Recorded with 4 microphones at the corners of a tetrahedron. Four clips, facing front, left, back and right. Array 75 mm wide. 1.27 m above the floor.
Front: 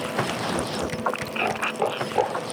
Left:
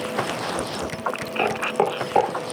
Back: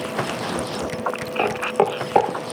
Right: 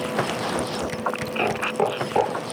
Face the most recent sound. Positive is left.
turn(degrees=160)